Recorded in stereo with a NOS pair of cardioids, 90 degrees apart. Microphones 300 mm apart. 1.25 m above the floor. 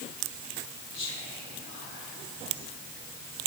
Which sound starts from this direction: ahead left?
Whispering, at 0.9 s.